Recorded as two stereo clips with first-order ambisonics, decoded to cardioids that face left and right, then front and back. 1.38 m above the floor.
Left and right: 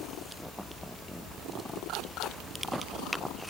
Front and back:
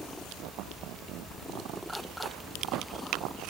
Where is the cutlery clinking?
No cutlery clinking in this recording.